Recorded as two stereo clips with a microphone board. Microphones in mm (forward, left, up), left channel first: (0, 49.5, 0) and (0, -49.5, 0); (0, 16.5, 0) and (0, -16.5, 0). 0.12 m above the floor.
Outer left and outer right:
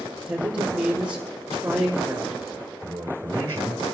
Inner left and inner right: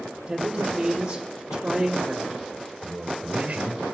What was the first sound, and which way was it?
A man speaking, 10° right (ahead or behind).